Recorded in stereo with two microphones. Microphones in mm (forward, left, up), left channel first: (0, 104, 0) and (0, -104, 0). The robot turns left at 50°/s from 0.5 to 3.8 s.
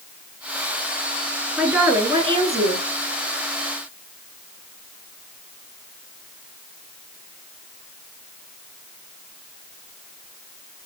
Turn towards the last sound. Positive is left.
turn(degrees=-115)